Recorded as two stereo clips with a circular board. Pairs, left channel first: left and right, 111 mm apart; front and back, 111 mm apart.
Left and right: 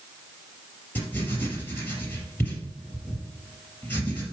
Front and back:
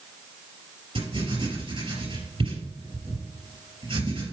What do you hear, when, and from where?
0.9 s writing: 160° left, 3.5 m